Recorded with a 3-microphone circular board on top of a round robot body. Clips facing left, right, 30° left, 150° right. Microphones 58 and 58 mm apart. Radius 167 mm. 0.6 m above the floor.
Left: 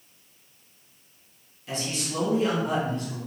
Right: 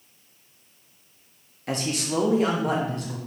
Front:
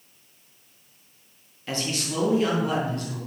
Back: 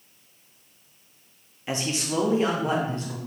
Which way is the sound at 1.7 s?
80° right.